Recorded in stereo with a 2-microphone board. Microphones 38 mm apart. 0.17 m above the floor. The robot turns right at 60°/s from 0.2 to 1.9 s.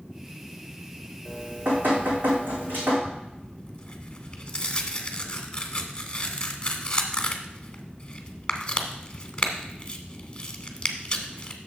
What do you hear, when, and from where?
1.2 s dripping: 150° right, 3.5 m; by 3.0 s 115° right, 3.5 m
3.0 s tearing paper: 25° left (ahead or behind), 1.1 m